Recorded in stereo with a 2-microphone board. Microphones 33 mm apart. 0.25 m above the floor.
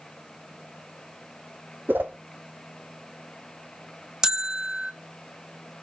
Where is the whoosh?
90° right, 1.9 m.